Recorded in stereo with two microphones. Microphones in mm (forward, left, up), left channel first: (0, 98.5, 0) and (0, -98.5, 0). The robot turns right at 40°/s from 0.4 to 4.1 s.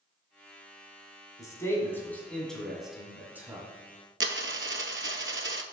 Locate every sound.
1.4 s a man speaking: 15° left (ahead or behind), 1.7 m; by 3.7 s 15° right (ahead or behind), 1.7 m
4.2 s a dropped coin: 85° right, 0.6 m